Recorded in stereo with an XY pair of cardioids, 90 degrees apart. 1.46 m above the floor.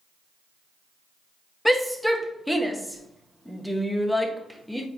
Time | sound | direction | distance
1.6 | a shout | straight ahead | 1.5 m